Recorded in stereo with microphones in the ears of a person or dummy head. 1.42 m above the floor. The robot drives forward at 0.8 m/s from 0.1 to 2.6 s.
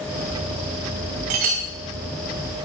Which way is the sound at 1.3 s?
30° right (ahead or behind).